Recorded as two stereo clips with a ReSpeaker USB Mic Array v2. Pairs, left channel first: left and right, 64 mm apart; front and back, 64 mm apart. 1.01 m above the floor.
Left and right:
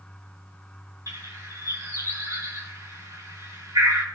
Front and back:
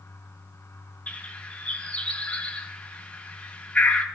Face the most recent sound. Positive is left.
turn(degrees=-65)